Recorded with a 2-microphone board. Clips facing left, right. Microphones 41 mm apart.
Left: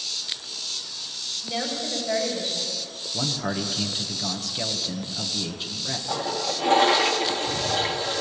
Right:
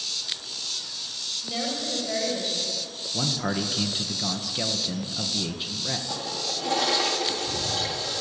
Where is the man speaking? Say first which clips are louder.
Even; 5° right (ahead or behind), 1.6 m.